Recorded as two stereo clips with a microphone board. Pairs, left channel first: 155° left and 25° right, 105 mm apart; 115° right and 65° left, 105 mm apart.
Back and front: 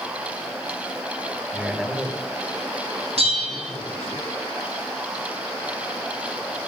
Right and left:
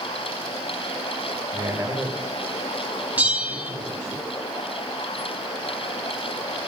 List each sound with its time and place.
1.5 s a man speaking: 50° left, 1.3 m; by 4.2 s 135° right, 2 m
3.2 s a bell: 5° right, 1.2 m